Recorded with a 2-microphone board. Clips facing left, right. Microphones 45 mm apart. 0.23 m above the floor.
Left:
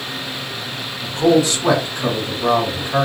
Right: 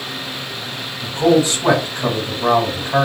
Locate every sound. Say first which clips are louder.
1.0 s a man speaking: even; 35° right (ahead or behind), 1.4 m